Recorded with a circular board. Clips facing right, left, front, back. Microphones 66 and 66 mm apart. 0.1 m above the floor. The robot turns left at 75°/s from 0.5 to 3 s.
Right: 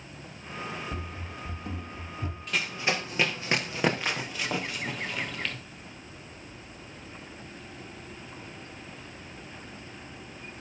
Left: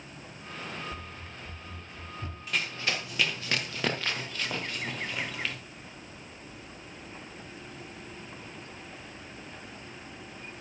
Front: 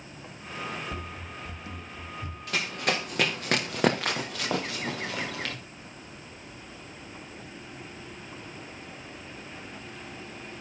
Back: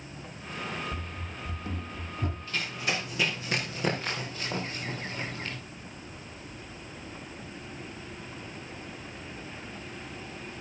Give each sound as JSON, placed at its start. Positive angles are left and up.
{"t": 0.9, "sound": "running footsteps", "azimuth_deg": -60, "distance_m": 0.6}
{"t": 2.5, "sound": "running footsteps", "azimuth_deg": 0, "distance_m": 2.5}